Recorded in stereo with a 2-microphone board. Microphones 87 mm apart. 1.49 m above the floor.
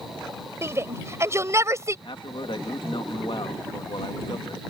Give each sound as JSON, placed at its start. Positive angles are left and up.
{"t": 0.6, "sound": "a shout", "side_deg": -30}
{"t": 2.0, "sound": "a man speaking", "side_deg": 80}